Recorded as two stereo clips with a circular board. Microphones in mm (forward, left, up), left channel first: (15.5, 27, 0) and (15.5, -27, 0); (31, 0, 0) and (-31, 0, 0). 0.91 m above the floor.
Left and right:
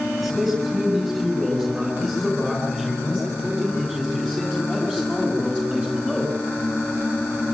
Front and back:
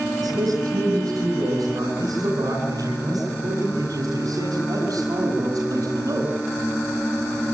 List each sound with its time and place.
0.2 s a man speaking: 170° right, 10 m; by 6.3 s 160° right, 6.5 m